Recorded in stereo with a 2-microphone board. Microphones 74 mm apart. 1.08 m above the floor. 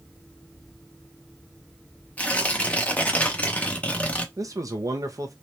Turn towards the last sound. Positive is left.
turn(degrees=-50)  # may be behind; listen again after turning